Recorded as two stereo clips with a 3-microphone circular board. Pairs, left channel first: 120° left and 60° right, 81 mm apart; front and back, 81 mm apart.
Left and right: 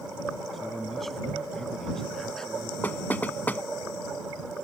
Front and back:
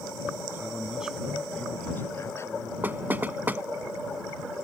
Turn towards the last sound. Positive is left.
turn(degrees=155)